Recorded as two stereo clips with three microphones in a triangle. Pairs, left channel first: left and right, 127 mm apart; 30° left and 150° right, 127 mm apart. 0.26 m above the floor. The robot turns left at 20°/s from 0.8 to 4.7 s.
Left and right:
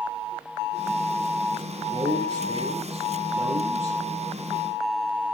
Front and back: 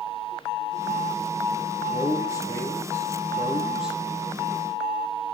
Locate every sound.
1.9 s a man speaking: 25° right, 5 m; by 4.0 s 70° right, 5 m